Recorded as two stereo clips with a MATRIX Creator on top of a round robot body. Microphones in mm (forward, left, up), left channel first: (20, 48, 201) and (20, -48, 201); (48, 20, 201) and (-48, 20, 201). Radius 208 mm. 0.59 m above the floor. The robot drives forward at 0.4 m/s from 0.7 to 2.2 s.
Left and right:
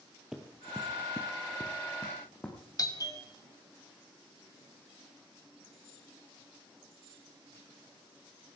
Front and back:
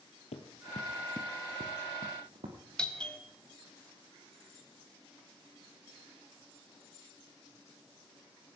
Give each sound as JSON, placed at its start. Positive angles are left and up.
{"t": 0.3, "sound": "running footsteps", "azimuth_deg": -5, "distance_m": 1.3}
{"t": 2.8, "sound": "a doorbell", "azimuth_deg": 75, "distance_m": 2.0}